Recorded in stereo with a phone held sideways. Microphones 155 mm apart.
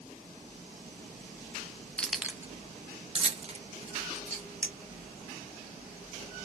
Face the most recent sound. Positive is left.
turn(degrees=-20)  # may be behind; listen again after turning